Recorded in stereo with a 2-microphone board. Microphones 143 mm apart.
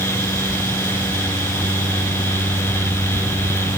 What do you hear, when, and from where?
Only background noise.